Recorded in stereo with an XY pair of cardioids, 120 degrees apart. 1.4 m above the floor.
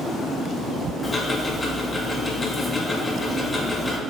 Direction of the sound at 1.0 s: 15° left.